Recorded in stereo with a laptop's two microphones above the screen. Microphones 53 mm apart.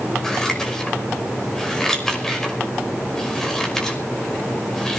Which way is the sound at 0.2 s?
10° left (ahead or behind).